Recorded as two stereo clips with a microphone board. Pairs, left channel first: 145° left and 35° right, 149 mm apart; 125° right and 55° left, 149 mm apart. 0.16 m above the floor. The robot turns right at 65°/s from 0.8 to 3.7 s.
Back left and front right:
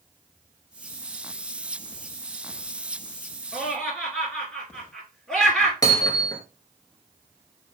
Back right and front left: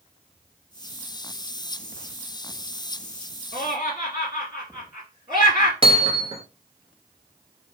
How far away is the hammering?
About 0.7 m.